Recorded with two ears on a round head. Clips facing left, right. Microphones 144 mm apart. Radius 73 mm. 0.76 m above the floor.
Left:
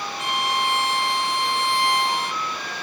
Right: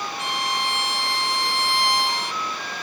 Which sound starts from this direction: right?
A violin, at 0.2 s.